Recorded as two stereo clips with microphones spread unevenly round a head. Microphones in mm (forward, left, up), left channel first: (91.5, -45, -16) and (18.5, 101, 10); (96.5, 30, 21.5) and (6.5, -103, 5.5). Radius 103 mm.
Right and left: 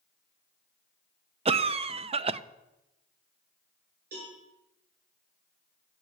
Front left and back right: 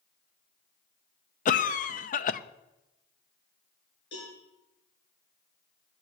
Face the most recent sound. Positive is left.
turn(degrees=95)